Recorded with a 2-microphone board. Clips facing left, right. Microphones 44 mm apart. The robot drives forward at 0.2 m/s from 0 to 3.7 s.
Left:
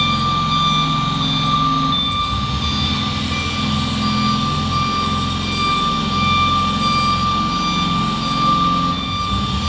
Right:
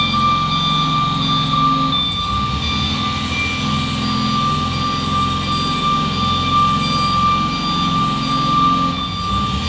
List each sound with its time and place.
0.0 s an engine running: 20° right (ahead or behind), 2.5 m; by 9.7 s 25° right (ahead or behind), 2 m